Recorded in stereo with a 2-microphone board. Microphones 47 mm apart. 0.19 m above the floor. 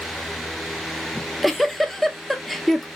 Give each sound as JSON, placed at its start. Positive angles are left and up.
{"t": 1.1, "sound": "a giggle", "side_deg": 5, "distance_m": 0.5}